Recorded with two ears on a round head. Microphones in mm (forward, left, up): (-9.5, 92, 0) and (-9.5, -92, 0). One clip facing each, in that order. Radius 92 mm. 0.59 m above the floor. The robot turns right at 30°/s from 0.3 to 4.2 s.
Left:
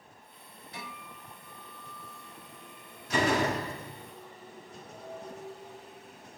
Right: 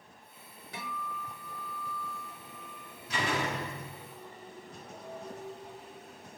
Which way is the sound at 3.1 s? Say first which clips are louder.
Left 6 dB; 40° left (ahead or behind).